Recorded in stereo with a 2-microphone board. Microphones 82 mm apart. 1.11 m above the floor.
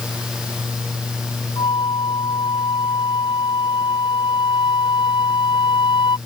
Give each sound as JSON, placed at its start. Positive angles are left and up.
{"t": 1.6, "sound": "a flute", "side_deg": 85}